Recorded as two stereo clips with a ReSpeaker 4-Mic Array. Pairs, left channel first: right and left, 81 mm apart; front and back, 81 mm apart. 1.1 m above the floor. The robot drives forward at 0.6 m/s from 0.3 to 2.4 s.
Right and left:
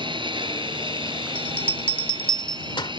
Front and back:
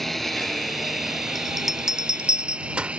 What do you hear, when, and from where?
0.0 s a lawn mower: 90° left; by 3.0 s 105° left
1.4 s a bell: 90° right; by 2.9 s 105° right